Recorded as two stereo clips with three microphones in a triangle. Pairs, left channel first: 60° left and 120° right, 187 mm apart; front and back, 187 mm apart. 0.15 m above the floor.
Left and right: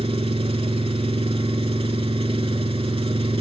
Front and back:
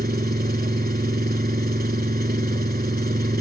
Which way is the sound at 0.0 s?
170° right.